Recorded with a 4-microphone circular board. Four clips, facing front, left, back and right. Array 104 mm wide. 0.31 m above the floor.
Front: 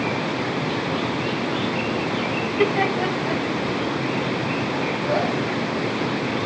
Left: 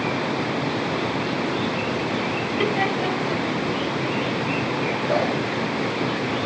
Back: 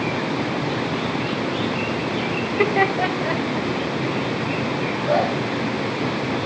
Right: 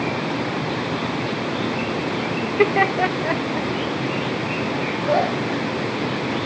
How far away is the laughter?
About 1.0 m.